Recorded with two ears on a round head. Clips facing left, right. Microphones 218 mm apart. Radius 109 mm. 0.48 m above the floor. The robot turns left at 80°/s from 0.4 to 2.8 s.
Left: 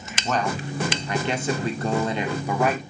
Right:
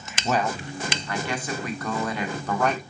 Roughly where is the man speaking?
Centre.